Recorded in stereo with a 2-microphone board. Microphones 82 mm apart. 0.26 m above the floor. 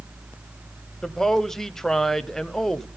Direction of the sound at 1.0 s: 5° left (ahead or behind).